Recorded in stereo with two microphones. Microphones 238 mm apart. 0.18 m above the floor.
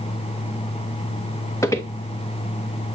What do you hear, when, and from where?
1.6 s footsteps: 10° left (ahead or behind), 1.0 m